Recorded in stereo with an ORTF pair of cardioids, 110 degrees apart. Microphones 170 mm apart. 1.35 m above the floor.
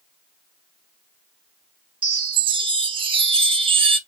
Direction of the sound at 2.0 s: 30° right.